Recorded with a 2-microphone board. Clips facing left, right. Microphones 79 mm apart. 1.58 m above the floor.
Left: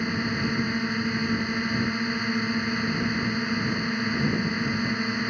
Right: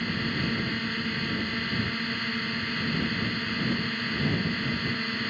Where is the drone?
15° left (ahead or behind).